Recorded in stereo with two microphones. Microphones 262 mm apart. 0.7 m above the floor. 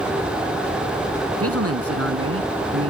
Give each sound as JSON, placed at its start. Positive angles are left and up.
{"t": 1.4, "sound": "a man speaking", "side_deg": -75}